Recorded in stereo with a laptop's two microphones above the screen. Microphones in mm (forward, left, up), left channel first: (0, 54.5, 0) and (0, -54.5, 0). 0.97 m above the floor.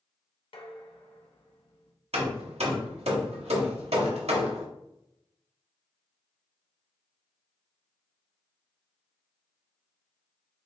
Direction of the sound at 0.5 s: 60° left (ahead or behind).